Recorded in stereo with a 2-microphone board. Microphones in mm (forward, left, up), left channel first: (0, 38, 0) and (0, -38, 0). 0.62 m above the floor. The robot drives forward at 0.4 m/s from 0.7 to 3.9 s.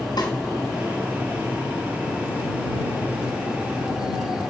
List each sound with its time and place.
0.2 s a snare drum: 75° left (ahead or behind), 5 m